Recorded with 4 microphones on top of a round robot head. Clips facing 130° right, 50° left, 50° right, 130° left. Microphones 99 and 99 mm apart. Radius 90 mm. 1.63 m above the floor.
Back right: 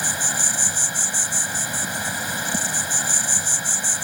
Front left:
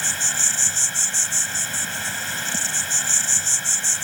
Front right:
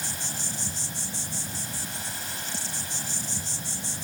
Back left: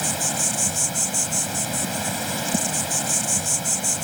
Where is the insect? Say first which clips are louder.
Back right 3 dB, back left 10 dB; 155° left.